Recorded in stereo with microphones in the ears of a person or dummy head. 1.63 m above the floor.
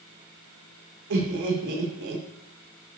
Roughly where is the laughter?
Right.